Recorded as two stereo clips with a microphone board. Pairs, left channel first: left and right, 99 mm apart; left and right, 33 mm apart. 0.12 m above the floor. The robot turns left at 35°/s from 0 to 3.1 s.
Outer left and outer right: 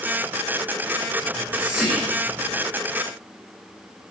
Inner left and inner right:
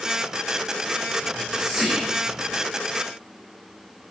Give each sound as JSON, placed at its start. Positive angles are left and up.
{"t": 1.2, "sound": "whispering", "side_deg": -20, "distance_m": 2.5}